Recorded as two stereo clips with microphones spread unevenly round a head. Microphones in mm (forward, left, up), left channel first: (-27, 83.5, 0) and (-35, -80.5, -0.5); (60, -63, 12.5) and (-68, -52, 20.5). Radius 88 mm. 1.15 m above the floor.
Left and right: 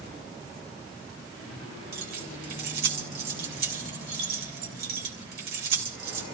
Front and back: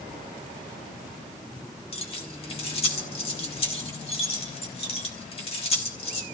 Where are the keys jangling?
50° right, 3.5 m.